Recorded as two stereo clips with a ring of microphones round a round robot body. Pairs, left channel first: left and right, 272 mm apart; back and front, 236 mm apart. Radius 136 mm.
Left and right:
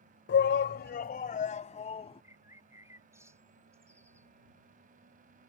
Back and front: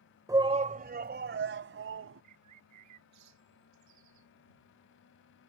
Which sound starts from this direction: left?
A shout, at 0.3 s.